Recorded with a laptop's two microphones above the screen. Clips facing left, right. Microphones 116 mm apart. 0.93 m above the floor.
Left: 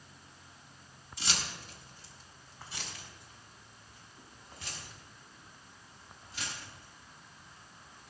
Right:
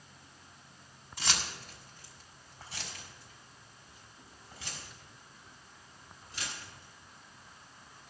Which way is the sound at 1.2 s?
55° right (ahead or behind).